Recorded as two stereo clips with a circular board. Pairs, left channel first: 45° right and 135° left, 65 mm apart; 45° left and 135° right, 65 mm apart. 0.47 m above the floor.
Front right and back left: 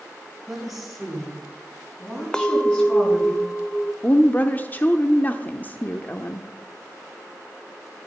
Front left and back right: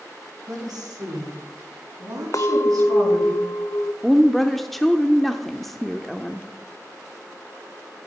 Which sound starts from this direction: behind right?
A woman speaking, at 0.5 s.